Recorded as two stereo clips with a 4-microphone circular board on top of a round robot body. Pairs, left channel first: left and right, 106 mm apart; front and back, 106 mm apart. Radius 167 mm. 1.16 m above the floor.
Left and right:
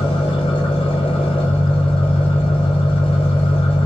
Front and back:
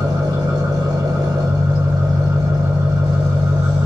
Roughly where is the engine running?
Behind left.